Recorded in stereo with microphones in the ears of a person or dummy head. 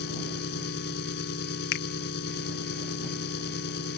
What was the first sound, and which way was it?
An engine running, 65° left (ahead or behind).